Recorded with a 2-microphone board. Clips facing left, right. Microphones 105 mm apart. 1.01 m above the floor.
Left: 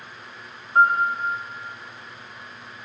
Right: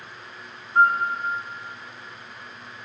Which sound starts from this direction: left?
A piano, at 0.8 s.